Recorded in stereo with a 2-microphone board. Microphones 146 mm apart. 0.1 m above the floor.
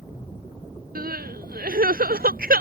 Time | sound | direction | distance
0.9 | crying | 85° right | ?